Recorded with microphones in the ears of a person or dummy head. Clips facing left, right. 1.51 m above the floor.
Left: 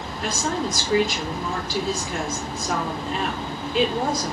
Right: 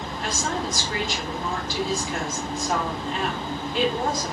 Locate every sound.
0.2 s a woman speaking: 60° left (ahead or behind), 1.6 m